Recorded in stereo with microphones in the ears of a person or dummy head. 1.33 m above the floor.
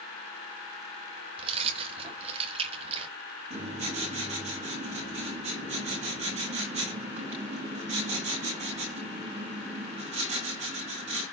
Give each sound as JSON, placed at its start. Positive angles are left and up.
{"t": 1.4, "sound": "keys jangling", "side_deg": -35, "distance_m": 1.3}
{"t": 3.5, "sound": "writing", "side_deg": -35, "distance_m": 9.5}